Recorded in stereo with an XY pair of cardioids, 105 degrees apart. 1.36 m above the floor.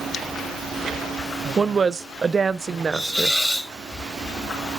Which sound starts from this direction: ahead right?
A woman speaking, at 1.6 s.